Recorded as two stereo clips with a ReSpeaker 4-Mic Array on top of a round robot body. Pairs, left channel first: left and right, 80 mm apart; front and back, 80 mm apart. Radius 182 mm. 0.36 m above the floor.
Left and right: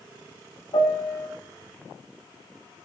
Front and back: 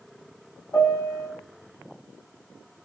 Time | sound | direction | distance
0.7 | a piano | 60° left | 1.1 m